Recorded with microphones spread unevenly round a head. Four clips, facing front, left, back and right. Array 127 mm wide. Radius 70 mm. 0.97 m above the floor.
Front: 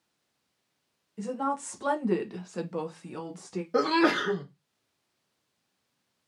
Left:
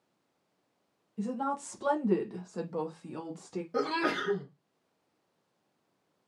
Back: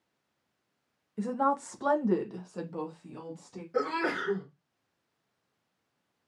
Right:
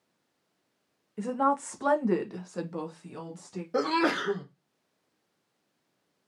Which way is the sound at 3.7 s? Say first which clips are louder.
Right 5 dB, front 6 dB; 35° right.